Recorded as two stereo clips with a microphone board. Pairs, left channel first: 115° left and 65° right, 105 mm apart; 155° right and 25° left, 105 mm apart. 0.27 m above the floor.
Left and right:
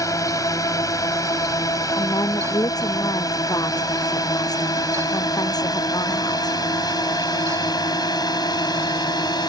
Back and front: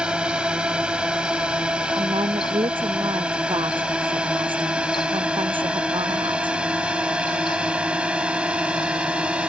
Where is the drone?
95° left.